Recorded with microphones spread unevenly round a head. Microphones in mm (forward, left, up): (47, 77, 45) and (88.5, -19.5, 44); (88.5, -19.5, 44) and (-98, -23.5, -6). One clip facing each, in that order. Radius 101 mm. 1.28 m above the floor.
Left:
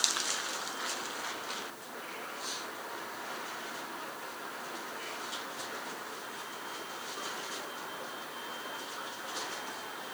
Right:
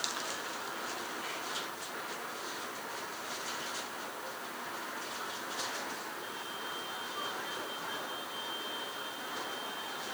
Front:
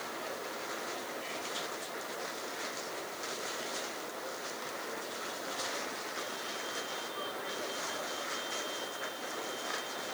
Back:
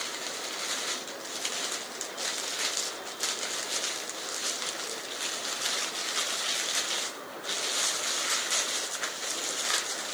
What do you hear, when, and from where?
Only background noise.